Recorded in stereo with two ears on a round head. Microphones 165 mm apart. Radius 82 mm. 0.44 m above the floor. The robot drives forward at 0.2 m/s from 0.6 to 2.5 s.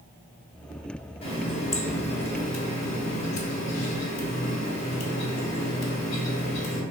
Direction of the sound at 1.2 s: 30° left (ahead or behind).